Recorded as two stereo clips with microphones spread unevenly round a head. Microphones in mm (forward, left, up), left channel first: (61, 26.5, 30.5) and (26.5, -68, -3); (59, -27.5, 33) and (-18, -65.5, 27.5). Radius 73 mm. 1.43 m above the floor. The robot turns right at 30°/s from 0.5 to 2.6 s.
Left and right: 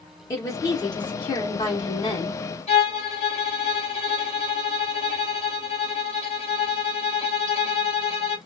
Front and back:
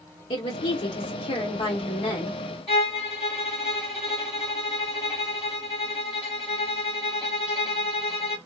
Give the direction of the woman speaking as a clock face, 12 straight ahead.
12 o'clock.